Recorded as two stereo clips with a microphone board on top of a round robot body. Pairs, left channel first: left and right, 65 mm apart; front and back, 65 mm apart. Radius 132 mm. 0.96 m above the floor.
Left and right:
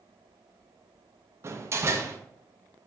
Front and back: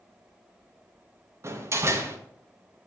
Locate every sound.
1.4 s a door slam: 135° right, 1.2 m